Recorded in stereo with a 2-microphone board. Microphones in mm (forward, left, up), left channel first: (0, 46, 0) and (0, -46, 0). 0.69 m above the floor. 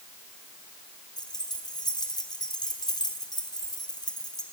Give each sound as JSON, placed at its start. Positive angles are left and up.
{"t": 1.2, "sound": "keys jangling", "side_deg": 50, "distance_m": 4.0}